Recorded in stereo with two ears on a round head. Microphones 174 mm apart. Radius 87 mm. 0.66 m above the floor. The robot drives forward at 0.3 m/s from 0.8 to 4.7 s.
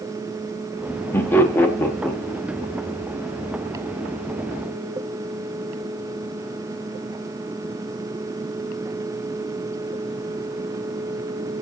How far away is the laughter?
About 1.0 m.